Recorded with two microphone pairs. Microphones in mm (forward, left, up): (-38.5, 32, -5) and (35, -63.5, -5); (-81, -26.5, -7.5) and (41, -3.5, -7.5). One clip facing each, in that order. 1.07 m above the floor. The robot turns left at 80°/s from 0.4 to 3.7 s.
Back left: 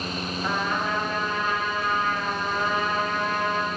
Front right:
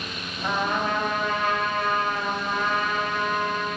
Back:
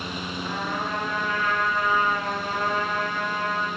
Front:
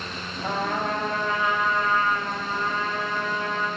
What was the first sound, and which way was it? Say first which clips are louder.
A trumpet: front right 3 dB, front 5 dB; 25° left.